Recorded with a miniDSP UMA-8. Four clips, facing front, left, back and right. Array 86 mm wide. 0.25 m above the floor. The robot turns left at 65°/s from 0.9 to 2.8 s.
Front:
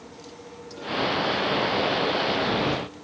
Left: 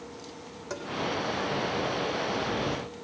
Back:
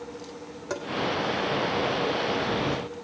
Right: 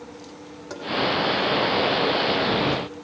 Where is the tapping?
170° right, 3 m.